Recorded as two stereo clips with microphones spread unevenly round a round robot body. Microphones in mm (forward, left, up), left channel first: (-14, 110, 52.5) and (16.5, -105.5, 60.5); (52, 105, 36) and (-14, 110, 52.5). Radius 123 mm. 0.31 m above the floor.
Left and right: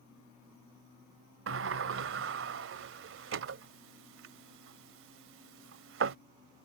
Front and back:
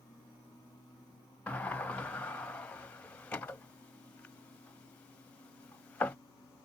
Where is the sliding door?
65° right.